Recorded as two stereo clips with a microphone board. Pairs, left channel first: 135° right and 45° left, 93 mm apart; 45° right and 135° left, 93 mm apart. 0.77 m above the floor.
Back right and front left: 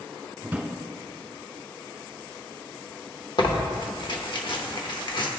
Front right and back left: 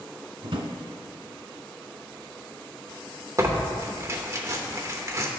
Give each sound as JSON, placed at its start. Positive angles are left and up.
{"t": 0.4, "sound": "a drawer", "azimuth_deg": 120, "distance_m": 1.2}
{"t": 3.4, "sound": "tearing paper", "azimuth_deg": -165, "distance_m": 0.9}